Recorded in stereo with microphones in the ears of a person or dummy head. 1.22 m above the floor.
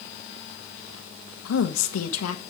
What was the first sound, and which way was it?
A woman speaking, 75° left (ahead or behind).